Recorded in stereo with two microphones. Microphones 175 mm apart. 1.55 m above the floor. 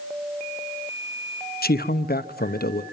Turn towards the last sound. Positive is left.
turn(degrees=60)  # may be behind; listen again after turning